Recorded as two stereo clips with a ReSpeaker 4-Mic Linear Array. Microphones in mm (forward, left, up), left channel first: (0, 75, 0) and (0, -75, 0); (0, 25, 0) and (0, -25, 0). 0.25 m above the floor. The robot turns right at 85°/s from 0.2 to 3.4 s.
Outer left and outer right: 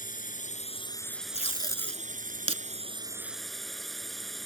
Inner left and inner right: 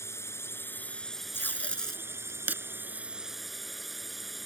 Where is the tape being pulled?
55° left (ahead or behind); by 2.6 s 55° right (ahead or behind).